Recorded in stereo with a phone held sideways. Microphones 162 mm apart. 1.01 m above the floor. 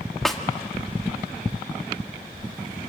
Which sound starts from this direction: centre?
A snare drum, at 0.2 s.